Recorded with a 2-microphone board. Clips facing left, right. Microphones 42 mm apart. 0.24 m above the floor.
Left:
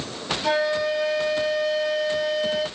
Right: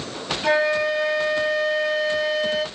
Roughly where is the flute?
Right.